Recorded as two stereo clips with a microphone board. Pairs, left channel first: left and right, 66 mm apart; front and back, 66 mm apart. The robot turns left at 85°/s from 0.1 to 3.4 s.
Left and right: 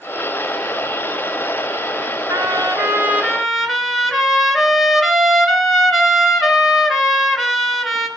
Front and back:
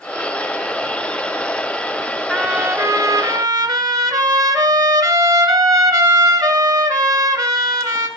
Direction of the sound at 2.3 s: 85° right.